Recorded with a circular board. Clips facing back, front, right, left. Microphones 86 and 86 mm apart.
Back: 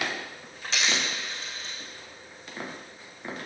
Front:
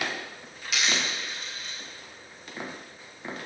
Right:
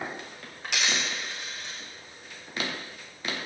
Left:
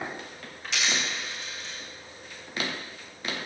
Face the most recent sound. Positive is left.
turn(degrees=-120)